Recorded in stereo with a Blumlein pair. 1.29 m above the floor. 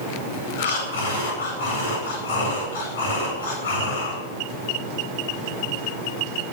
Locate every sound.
0.6 s breathing: 60° left, 8.5 m